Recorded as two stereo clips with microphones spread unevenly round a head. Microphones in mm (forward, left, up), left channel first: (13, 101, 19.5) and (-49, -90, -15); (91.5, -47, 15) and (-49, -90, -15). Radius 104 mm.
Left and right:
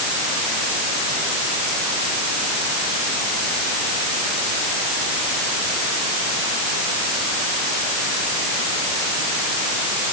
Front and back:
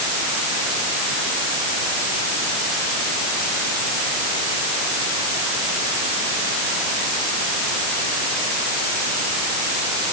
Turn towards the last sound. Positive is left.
No sound to turn to.